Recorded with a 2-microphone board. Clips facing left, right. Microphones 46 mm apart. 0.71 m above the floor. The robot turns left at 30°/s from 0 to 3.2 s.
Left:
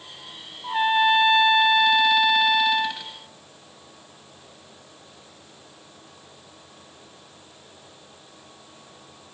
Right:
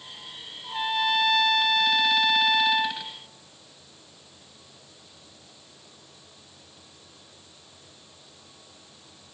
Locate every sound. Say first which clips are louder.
0.6 s a trumpet: left 7 dB; 70° left, 0.6 m; by 3.0 s straight ahead, 0.6 m